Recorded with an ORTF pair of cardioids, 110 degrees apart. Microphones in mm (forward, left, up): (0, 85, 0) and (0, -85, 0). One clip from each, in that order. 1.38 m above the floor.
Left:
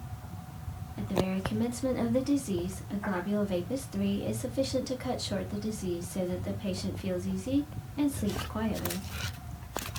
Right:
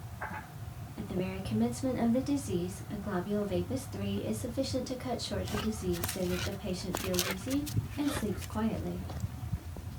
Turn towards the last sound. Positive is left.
turn(degrees=15)